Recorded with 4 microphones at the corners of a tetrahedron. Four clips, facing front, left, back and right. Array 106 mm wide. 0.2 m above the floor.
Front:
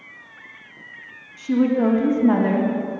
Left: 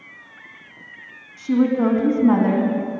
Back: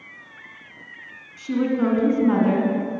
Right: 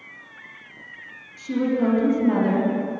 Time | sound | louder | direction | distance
1.4 | a woman speaking | left 4 dB, front 3 dB | 90° left | 1.6 m